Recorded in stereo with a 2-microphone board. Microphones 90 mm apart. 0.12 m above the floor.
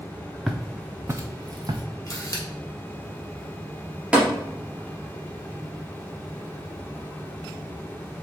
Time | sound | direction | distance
0.5 | footsteps | centre (ahead or behind) | 0.7 m
2.1 | a camera shutter | 35° left (ahead or behind) | 1.4 m
4.1 | tapping | 10° right (ahead or behind) | 2 m